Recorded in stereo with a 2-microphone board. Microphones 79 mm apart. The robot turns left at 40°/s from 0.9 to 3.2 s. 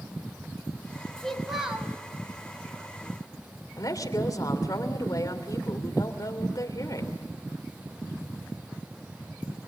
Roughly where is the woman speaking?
Left.